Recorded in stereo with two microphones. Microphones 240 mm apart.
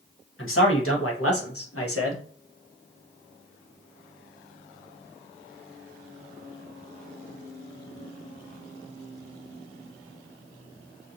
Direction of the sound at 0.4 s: 65° left (ahead or behind).